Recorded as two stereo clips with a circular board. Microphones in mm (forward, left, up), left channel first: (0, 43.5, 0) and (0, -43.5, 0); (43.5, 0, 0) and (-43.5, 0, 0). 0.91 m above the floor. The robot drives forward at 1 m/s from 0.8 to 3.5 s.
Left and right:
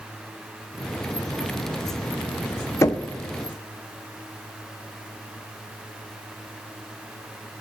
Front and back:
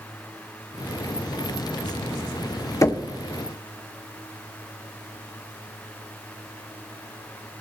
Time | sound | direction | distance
2.8 | knocking | 40° left | 0.6 m